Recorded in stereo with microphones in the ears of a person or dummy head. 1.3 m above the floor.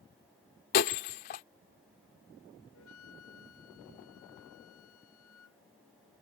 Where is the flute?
75° left (ahead or behind).